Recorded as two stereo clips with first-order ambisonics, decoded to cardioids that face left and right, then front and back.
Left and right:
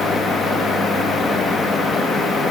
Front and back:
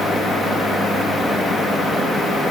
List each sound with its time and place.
Only background noise.